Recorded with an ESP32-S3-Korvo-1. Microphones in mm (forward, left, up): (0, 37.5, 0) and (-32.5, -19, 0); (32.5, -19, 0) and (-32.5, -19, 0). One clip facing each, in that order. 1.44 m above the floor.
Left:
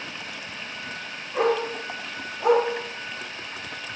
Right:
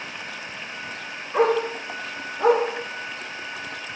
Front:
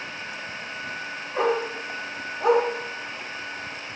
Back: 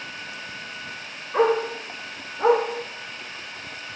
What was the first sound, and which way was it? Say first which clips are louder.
A dog barking: right 3 dB, back 4 dB; 155° right.